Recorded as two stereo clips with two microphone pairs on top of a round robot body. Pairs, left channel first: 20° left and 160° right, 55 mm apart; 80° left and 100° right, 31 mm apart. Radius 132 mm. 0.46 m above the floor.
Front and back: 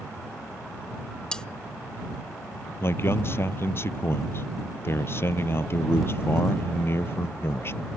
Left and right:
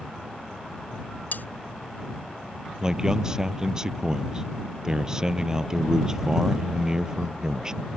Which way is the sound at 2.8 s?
30° right.